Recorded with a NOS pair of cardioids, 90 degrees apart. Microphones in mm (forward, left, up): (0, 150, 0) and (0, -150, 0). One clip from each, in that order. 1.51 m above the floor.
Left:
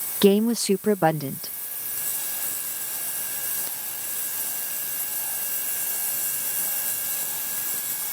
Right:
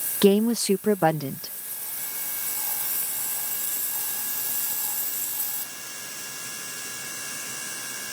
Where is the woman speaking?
Straight ahead.